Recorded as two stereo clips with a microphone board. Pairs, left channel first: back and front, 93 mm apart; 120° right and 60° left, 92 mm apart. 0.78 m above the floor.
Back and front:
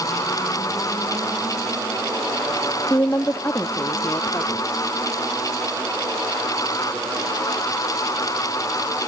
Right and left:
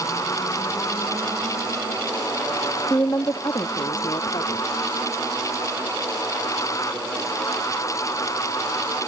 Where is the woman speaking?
155° right; by 4.8 s 115° right.